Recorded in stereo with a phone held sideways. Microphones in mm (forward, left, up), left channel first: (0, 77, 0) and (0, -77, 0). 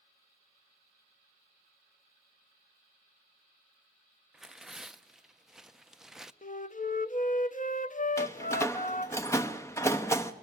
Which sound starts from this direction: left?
A flute, at 6.4 s.